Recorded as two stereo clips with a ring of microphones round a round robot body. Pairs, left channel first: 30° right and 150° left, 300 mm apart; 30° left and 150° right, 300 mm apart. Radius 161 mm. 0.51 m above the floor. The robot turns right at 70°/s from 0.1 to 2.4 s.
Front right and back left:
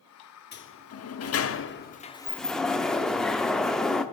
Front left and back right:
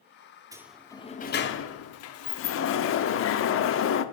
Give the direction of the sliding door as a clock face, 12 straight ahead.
2 o'clock.